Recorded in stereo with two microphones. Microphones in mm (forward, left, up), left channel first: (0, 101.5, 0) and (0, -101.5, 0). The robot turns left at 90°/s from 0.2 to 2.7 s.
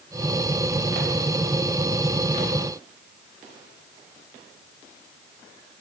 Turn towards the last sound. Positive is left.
No sound to turn to.